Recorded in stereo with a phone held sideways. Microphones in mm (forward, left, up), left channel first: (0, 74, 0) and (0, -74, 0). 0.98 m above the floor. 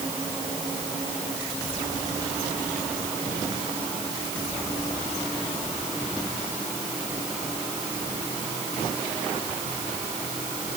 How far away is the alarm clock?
I don't hear an alarm clock.